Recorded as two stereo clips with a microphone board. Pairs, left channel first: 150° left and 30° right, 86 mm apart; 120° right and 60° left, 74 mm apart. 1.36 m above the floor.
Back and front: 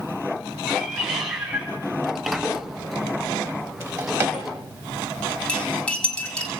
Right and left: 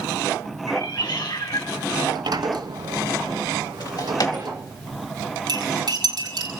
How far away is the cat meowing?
About 6 m.